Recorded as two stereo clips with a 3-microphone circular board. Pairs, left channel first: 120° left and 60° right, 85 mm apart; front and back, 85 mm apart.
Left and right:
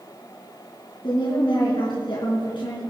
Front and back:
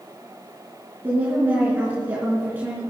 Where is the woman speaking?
115° left, 4 m.